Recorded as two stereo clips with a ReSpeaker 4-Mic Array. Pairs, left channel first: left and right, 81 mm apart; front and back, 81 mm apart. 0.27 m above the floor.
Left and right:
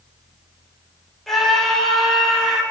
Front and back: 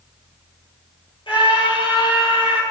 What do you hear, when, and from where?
1.3 s a scream: straight ahead, 7 m; by 2.6 s 5° right, 8 m